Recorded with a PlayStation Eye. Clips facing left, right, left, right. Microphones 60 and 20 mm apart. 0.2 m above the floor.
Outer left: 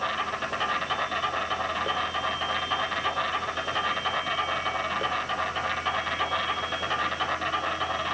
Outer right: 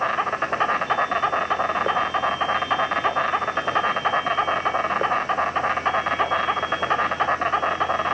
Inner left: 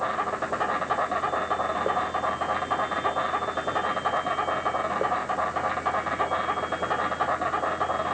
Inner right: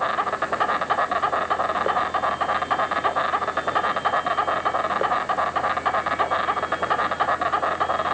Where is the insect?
40° right (ahead or behind), 0.9 m.